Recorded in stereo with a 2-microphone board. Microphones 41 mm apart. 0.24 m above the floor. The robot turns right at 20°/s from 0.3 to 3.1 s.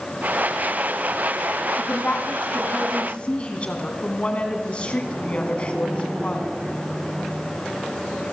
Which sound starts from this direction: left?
A woman speaking, at 1.8 s.